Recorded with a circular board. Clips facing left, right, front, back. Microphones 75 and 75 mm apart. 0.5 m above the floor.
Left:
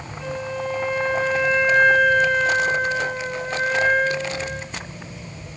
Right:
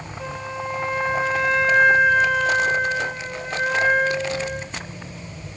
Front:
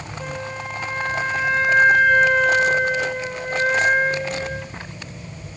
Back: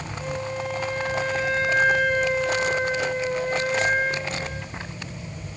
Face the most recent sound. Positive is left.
turn(degrees=-5)